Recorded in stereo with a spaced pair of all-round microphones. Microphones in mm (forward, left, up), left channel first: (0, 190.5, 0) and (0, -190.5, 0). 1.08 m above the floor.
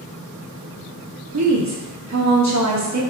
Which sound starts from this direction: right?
A woman speaking, at 1.3 s.